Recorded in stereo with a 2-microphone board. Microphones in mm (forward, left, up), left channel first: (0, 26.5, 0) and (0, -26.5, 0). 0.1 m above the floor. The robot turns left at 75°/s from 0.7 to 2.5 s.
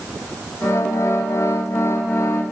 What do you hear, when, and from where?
Only background noise.